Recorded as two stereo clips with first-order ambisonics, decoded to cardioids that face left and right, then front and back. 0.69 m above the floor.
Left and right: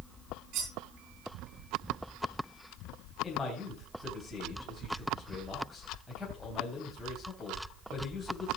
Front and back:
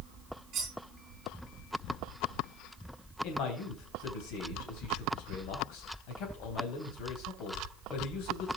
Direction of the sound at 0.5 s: 125° right.